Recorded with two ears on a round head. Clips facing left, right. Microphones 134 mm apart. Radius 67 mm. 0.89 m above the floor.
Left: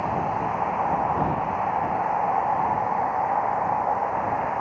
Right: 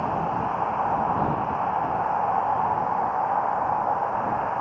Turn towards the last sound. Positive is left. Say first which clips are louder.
# even
turn(degrees=5)  # may be behind; listen again after turning